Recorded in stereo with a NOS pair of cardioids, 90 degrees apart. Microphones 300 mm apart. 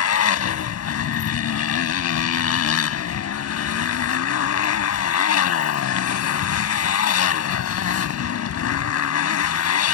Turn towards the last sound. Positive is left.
turn(degrees=55)